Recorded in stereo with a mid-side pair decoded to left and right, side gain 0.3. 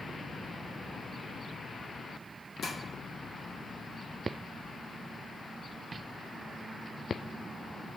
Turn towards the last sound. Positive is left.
turn(degrees=60)